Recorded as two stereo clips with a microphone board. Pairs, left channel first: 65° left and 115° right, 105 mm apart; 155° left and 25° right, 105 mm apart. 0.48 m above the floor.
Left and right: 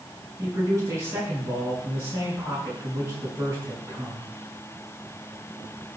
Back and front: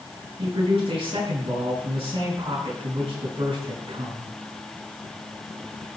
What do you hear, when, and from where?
0.4 s a man speaking: 50° right, 6.5 m